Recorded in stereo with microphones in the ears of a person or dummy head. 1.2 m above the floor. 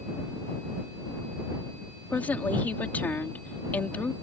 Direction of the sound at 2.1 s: 10° left (ahead or behind).